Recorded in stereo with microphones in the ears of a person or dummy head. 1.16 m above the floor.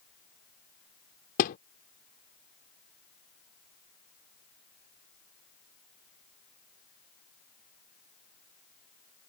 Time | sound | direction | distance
1.4 | a thud | 45° left (ahead or behind) | ?